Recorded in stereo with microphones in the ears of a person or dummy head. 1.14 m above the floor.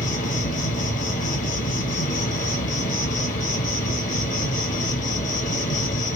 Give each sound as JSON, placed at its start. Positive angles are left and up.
{"t": 0.0, "sound": "an insect", "side_deg": 45, "distance_m": 0.8}